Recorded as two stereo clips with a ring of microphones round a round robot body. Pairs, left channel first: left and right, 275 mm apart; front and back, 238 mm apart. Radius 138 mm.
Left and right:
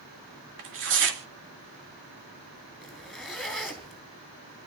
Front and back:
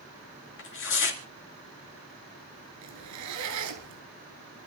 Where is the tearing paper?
45° right, 2.5 m.